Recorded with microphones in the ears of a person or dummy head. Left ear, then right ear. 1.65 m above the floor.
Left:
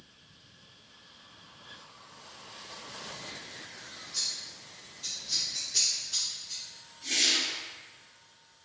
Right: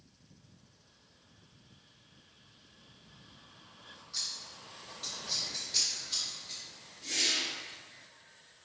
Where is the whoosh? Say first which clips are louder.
Left 4 dB; 25° left (ahead or behind), 1.6 m.